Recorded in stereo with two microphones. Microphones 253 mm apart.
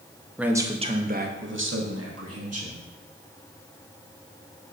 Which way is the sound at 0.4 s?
5° right (ahead or behind).